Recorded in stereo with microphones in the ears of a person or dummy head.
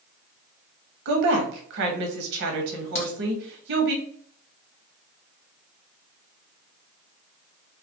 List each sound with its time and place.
1.1 s a woman speaking: 50° right (ahead or behind), 0.7 m
3.0 s a crack: 65° left (ahead or behind), 0.9 m